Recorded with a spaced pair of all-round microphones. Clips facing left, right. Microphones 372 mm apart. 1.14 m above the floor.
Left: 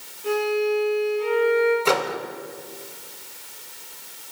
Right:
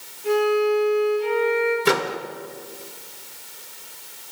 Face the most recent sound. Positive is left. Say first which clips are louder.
# right 1 dB
turn(degrees=-25)  # may be behind; listen again after turning